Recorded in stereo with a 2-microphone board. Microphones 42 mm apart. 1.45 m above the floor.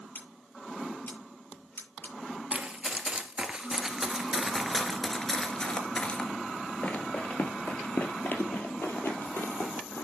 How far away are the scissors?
About 8 m.